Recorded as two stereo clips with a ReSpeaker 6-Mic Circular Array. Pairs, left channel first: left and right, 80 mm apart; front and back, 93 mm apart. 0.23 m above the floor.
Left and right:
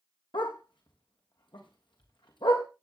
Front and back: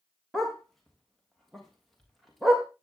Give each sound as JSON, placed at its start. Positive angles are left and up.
{"t": 0.3, "sound": "a dog barking", "azimuth_deg": 90, "distance_m": 3.0}